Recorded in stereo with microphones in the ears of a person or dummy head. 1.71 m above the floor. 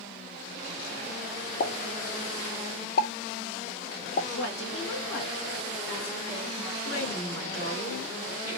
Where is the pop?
55° left (ahead or behind), 0.7 m.